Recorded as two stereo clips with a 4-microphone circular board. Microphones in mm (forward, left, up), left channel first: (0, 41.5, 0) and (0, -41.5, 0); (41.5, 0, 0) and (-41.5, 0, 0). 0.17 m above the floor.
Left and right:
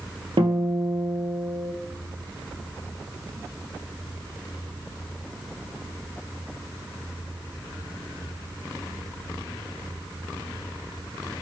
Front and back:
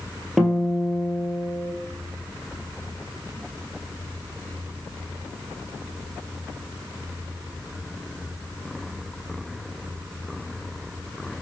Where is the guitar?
95° right, 0.7 m.